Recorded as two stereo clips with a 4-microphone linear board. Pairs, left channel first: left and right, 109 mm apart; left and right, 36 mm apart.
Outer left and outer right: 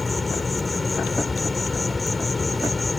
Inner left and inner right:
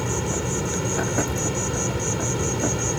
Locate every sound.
0.0 s an insect: centre (ahead or behind)